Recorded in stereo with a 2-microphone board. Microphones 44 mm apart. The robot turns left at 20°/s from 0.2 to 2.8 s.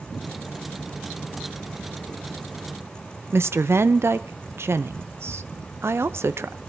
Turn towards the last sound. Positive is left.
turn(degrees=-65)  # may be behind; listen again after turning